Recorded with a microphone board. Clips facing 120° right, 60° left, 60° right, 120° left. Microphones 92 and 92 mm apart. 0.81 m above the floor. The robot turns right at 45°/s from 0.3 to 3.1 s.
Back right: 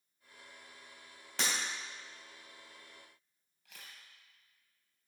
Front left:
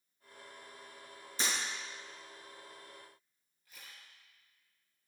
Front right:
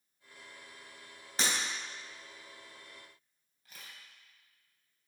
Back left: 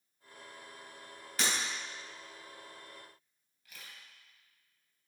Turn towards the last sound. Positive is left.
turn(degrees=-115)